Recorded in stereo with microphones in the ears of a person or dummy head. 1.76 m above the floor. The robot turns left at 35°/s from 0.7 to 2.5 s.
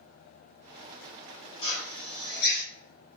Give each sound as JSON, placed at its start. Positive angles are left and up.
{"t": 1.6, "sound": "a drill", "azimuth_deg": 155, "distance_m": 2.5}